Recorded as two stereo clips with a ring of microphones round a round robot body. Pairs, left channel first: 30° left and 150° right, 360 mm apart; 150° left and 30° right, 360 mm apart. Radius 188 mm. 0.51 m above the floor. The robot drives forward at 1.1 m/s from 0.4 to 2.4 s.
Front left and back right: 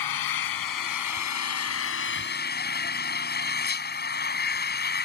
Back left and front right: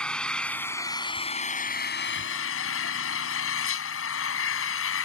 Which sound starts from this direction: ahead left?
An engine running, at 0.0 s.